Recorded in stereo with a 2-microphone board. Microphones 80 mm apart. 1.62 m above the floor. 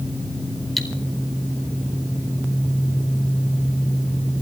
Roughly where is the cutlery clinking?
Centre.